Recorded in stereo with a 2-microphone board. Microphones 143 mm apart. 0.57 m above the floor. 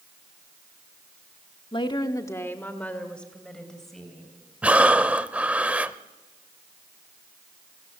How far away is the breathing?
About 0.5 m.